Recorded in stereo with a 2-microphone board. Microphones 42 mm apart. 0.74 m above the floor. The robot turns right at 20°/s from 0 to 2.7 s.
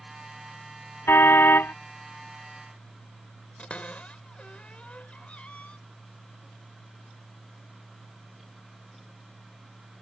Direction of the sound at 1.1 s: 70° left (ahead or behind).